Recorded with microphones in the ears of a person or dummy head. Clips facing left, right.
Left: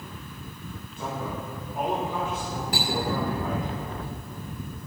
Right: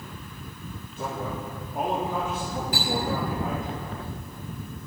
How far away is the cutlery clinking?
About 3.5 m.